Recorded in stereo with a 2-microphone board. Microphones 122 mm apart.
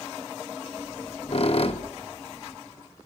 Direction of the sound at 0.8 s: 50° left (ahead or behind).